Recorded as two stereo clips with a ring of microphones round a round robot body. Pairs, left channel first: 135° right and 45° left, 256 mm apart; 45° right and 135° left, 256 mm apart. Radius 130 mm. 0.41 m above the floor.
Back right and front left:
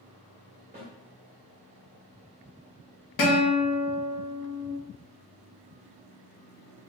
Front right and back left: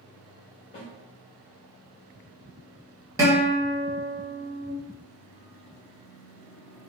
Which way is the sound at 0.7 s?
Straight ahead.